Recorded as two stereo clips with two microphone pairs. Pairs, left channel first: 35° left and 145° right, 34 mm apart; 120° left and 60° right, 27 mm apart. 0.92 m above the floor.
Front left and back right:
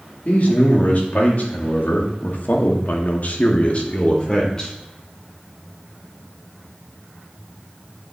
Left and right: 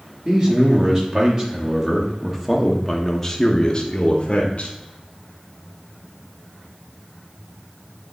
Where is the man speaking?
5° right, 2.5 m; by 4.7 s 110° left, 1.1 m.